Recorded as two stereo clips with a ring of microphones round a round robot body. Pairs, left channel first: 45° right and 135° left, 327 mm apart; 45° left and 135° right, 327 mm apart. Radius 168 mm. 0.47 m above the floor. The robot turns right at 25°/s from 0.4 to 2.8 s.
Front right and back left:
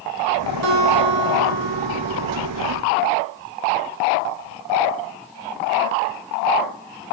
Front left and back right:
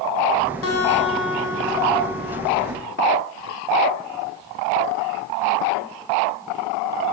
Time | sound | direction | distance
0.6 | a guitar | 95° left | 4 m